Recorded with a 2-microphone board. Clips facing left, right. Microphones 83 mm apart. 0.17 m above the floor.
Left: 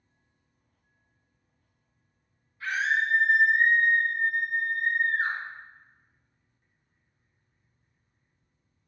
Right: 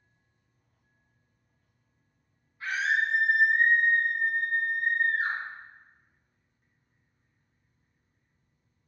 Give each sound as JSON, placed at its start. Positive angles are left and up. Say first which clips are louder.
{"t": 2.6, "sound": "a scream", "louder": "left 1 dB", "side_deg": -25, "distance_m": 1.8}